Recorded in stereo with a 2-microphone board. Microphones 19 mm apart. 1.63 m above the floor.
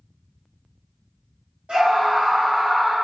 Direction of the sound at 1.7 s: 75° right (ahead or behind).